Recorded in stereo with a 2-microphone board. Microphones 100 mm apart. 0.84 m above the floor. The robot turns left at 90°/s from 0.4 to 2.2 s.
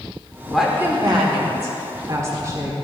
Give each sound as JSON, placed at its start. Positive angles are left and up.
{"t": 0.5, "sound": "a woman speaking", "azimuth_deg": 5, "distance_m": 2.0}